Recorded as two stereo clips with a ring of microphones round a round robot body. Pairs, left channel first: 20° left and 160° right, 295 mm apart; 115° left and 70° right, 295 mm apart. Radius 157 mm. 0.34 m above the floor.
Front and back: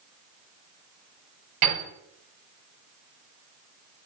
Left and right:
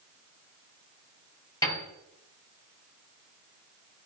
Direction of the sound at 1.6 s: 170° right.